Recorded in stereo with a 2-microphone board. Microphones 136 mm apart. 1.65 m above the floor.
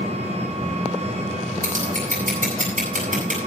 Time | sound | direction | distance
0.0 | an engine running | 55° right (ahead or behind) | 6 m
1.6 | scissors | 75° right (ahead or behind) | 8 m